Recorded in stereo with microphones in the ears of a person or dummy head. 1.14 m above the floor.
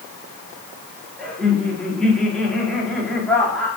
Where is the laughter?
5° left (ahead or behind), 2 m.